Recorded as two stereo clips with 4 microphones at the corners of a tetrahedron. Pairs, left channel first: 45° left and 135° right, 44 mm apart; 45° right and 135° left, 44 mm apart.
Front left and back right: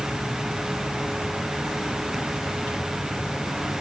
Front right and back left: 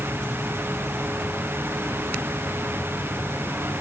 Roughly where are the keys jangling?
No keys jangling in this recording.